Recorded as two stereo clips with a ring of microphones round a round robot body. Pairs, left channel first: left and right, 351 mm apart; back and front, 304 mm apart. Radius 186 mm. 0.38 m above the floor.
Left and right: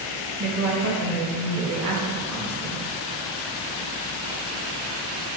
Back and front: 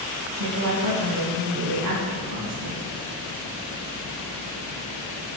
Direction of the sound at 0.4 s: 40° right.